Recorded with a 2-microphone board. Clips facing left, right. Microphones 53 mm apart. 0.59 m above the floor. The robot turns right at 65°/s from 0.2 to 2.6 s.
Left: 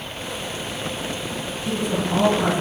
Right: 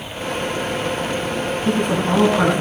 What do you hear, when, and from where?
1.6 s a woman speaking: 130° right, 6 m; by 2.6 s 70° right, 6 m